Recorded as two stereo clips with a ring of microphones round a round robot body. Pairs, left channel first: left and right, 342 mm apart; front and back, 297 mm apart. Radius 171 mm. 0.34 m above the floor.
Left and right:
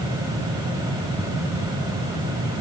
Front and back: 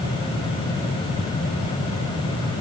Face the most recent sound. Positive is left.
No sound to turn to.